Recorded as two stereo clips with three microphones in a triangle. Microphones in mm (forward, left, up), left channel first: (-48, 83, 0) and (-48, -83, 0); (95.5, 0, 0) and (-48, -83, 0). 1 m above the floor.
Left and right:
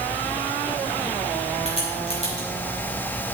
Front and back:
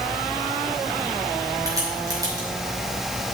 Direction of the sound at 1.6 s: 140° left.